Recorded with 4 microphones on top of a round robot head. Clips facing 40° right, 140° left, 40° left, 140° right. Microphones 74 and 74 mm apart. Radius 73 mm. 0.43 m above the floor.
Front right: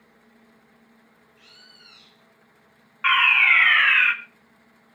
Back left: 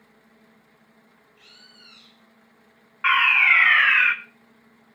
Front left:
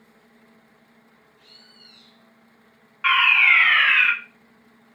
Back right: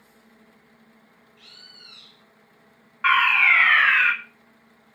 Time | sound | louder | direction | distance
1.4 | a bird | even, back right 4 dB | 130° right | 1.1 m
3.0 | a fire alarm | even, even | 150° right | 2 m